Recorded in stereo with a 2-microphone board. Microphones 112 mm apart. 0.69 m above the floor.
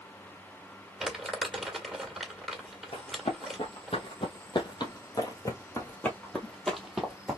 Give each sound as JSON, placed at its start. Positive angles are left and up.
{"t": 1.0, "sound": "crumpling", "side_deg": -5, "distance_m": 1.8}
{"t": 2.9, "sound": "running footsteps", "side_deg": 70, "distance_m": 2.0}